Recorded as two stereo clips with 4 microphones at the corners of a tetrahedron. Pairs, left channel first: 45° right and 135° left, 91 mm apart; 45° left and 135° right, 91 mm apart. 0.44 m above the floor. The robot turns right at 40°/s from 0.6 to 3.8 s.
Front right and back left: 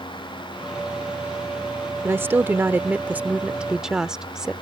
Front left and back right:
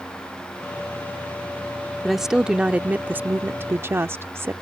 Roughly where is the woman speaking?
Behind left.